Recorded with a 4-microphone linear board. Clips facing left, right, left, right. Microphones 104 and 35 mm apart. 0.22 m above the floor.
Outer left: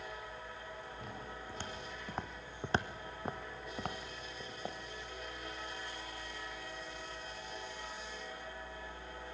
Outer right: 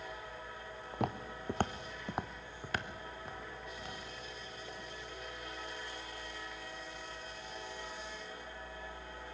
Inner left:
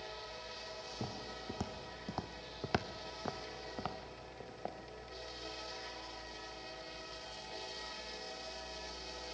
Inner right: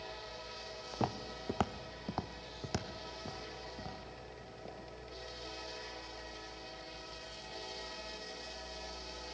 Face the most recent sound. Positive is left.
turn(degrees=65)  # may be behind; listen again after turning